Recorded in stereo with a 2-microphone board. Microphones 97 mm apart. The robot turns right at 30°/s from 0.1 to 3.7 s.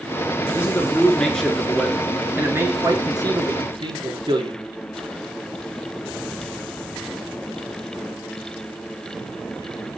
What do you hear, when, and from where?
0.5 s a man speaking: 150° left, 2.5 m; by 4.6 s 115° right, 2.5 m